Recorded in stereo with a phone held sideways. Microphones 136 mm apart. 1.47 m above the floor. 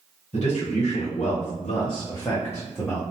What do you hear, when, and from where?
0.3 s a man speaking: 55° left (ahead or behind), 1.1 m; by 3.0 s 5° left (ahead or behind), 0.8 m